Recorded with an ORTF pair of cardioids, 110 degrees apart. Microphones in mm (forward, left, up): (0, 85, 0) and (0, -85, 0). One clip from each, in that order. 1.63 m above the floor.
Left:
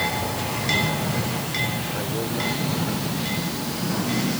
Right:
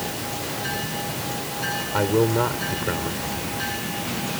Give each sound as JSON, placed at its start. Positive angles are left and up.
{"t": 1.9, "sound": "a man speaking", "azimuth_deg": -55}